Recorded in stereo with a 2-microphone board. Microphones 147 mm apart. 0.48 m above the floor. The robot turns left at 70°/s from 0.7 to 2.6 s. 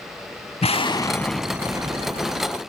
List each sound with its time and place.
0.6 s an explosion: 50° left, 0.6 m; by 2.6 s 85° right, 0.6 m